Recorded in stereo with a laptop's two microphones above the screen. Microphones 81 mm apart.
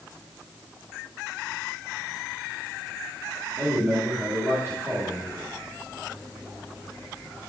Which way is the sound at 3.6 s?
30° right (ahead or behind).